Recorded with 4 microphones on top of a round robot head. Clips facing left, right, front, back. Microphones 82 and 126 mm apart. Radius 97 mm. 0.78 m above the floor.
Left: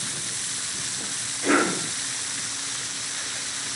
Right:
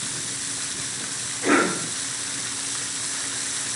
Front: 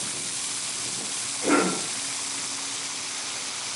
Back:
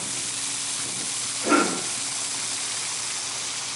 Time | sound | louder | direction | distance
1.4 | a cough | right 1 dB, back 1 dB | 15° right | 2 m